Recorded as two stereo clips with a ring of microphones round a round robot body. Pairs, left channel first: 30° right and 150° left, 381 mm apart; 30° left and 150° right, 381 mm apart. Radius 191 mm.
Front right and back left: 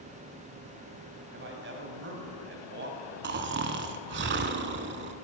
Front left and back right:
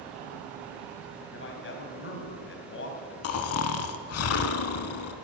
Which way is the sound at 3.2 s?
85° left.